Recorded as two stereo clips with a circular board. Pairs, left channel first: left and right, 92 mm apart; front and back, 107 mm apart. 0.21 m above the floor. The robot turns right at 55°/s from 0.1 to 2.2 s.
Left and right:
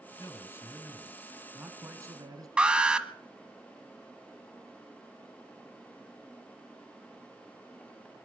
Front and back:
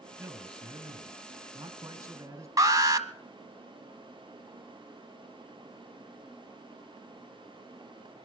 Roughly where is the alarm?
Behind.